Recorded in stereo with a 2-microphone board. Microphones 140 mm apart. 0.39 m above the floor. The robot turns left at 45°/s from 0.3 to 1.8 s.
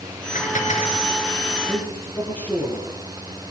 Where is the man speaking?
10° left (ahead or behind), 7.5 m; by 2.9 s 15° left (ahead or behind), 7.5 m.